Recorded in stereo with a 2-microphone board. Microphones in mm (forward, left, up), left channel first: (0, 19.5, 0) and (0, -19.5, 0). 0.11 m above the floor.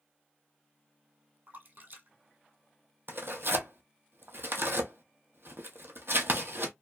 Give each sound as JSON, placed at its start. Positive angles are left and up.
{"t": 1.5, "sound": "a splash", "side_deg": -55, "distance_m": 1.1}
{"t": 3.1, "sound": "tearing paper", "side_deg": -70, "distance_m": 0.6}